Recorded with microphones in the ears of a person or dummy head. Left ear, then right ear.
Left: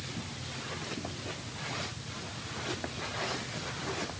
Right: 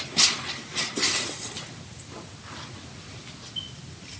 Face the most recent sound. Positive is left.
No sound to turn to.